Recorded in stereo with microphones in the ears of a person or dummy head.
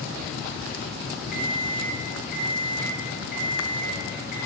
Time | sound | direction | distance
1.3 | an alarm clock | 45° left (ahead or behind) | 1.8 m